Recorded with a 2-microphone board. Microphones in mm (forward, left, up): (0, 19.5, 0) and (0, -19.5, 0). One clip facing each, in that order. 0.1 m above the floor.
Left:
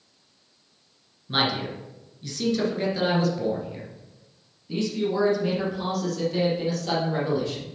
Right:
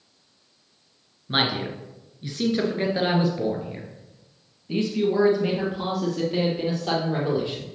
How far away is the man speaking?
About 1.8 m.